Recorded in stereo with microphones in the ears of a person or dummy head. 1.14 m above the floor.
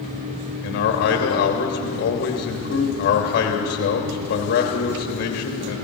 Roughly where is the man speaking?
Left.